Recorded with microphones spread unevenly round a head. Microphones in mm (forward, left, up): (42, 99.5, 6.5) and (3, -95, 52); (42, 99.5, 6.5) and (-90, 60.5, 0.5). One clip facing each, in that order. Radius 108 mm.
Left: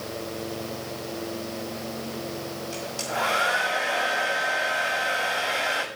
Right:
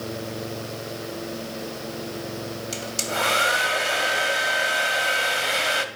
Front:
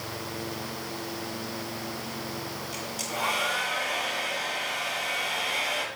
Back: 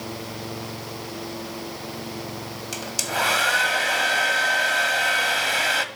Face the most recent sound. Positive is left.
turn(degrees=-150)